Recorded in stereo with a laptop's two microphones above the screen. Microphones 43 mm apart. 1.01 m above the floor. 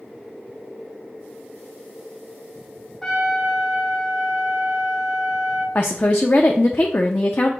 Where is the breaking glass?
I don't hear breaking glass.